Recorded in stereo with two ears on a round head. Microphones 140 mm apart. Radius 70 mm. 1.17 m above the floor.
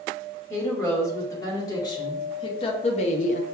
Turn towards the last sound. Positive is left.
turn(degrees=55)  # may be behind; listen again after turning